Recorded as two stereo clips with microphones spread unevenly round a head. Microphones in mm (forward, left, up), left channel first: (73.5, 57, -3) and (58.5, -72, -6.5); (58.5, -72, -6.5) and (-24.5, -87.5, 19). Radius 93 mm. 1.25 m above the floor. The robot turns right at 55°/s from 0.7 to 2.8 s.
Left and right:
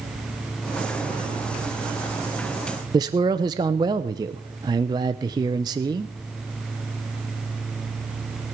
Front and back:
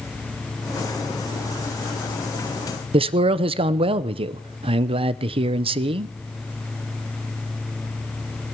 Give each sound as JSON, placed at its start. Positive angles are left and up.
{"t": 2.9, "sound": "a man speaking", "azimuth_deg": -160, "distance_m": 0.5}